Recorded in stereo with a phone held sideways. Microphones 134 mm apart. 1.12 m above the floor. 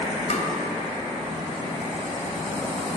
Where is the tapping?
55° left (ahead or behind), 2.5 m.